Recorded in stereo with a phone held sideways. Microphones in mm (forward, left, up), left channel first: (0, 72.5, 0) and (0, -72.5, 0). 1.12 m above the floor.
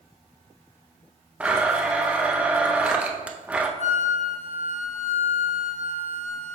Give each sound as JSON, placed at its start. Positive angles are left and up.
{"t": 1.4, "sound": "a blender", "side_deg": -10, "distance_m": 0.6}
{"t": 3.8, "sound": "a flute", "side_deg": 55, "distance_m": 0.8}